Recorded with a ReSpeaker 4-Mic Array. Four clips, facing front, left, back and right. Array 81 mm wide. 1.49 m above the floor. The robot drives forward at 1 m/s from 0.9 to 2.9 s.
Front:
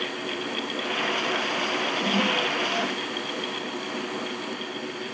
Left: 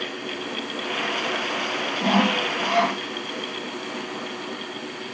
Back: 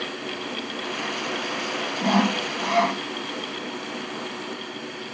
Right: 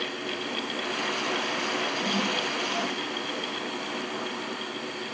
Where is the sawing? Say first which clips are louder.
Left 7 dB, back 6 dB; 125° left; by 3.0 s 140° left.